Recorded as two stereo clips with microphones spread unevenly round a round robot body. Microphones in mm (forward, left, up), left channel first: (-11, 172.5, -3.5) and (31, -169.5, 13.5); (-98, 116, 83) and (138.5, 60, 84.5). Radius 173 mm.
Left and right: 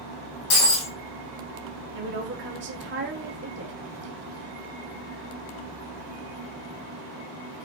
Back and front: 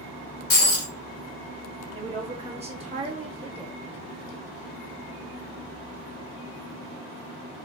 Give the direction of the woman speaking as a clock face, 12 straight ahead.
2 o'clock.